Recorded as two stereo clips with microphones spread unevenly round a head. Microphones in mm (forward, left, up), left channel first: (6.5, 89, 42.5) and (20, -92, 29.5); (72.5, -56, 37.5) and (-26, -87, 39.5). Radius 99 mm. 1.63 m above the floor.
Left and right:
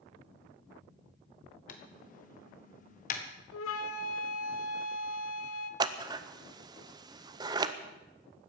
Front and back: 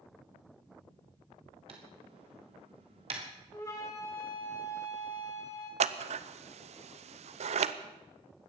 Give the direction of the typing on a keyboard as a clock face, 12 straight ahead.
7 o'clock.